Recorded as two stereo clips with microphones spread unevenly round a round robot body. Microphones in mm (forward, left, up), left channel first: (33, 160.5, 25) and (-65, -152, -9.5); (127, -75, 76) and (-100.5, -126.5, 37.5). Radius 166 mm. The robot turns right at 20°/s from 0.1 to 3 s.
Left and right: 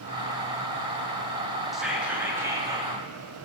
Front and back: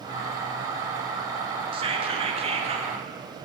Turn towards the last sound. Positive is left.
turn(degrees=-160)